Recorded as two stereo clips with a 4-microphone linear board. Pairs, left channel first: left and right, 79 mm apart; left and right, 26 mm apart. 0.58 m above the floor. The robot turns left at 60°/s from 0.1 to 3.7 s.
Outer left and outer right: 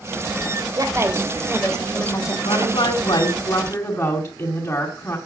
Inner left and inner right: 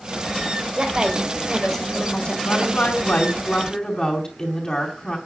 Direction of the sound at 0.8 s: 45° right (ahead or behind).